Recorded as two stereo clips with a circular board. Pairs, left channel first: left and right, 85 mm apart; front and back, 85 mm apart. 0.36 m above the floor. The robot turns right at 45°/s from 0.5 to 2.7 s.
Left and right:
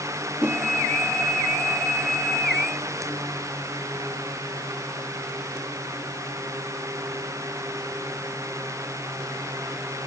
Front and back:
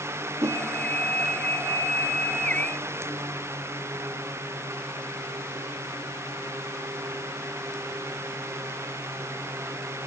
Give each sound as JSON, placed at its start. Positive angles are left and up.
{"t": 0.4, "sound": "a whoosh", "azimuth_deg": -145, "distance_m": 0.7}